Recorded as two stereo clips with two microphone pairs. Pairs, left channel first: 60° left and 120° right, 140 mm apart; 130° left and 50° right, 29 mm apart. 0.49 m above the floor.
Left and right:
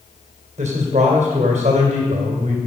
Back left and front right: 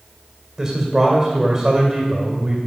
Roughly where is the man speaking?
Behind right.